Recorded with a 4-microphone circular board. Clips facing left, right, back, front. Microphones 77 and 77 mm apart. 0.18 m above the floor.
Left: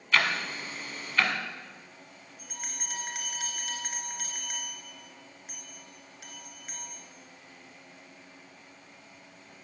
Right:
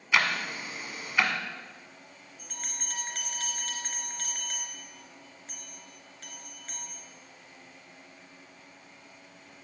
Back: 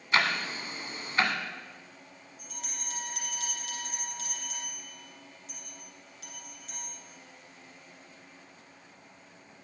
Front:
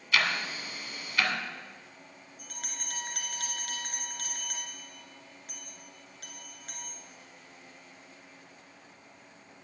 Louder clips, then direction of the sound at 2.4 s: Left 1 dB, even; 10° left.